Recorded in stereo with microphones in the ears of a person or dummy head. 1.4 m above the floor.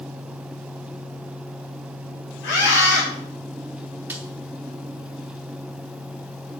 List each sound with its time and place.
2.4 s a scream: 60° left (ahead or behind), 5 m
4.1 s a snare drum: 5° right (ahead or behind), 0.9 m